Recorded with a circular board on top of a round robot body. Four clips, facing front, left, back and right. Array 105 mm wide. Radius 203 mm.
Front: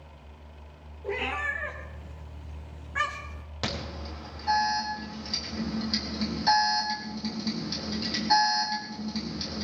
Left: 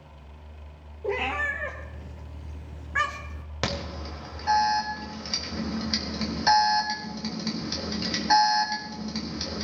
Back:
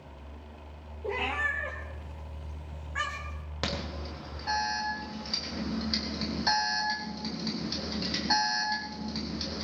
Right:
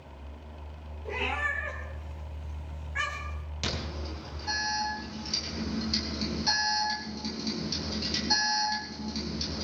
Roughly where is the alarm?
Left.